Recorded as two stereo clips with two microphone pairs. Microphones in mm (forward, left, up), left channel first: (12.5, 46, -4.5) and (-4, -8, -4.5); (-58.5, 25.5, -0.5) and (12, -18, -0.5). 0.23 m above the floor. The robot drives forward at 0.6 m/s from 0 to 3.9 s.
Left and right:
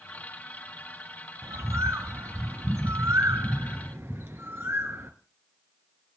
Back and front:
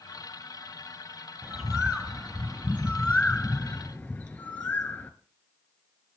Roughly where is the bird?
Right.